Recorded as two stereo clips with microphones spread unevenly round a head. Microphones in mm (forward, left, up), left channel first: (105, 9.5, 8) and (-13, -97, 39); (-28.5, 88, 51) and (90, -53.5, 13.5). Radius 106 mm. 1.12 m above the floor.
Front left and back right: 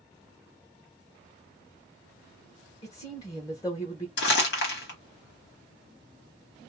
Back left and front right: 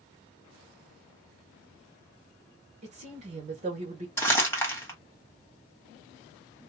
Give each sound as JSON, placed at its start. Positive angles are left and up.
{"t": 2.8, "sound": "a woman speaking", "azimuth_deg": -15, "distance_m": 1.1}
{"t": 4.2, "sound": "crumpling", "azimuth_deg": 50, "distance_m": 1.3}